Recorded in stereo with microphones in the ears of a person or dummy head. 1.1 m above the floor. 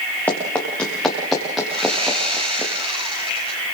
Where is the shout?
No shout in this recording.